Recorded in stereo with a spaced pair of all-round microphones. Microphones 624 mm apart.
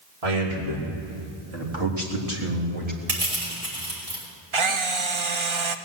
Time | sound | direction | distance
0.2 | a man speaking | 75° right (ahead or behind) | 4.5 m
3.1 | crushing | 80° right | 6 m
4.5 | a camera shutter | 50° right (ahead or behind) | 0.7 m